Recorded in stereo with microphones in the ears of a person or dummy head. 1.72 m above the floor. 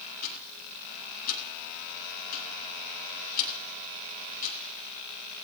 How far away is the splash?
I don't hear a splash.